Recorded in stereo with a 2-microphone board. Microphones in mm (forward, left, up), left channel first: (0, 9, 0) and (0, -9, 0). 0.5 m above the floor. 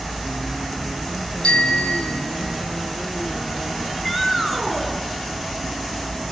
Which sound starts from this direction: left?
A bicycle bell, at 1.4 s.